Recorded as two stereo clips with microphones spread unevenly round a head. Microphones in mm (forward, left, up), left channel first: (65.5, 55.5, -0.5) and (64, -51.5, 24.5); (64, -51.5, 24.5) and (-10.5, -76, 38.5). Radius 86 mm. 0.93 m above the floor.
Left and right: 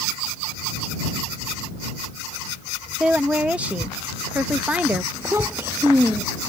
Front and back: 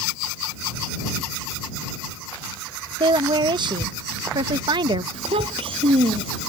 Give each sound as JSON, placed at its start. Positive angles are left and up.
{"t": 3.0, "sound": "a woman speaking", "azimuth_deg": 180}
{"t": 5.1, "sound": "a child speaking", "azimuth_deg": -170}